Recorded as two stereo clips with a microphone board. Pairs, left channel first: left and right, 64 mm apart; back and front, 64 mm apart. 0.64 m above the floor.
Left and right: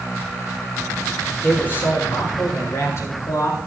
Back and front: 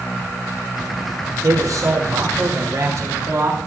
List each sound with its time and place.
1.4 s a man speaking: 30° left, 6.5 m; by 3.7 s 50° left, 7.5 m